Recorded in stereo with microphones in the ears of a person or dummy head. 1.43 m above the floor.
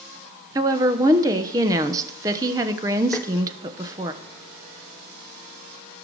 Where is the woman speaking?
10° right (ahead or behind), 1.0 m.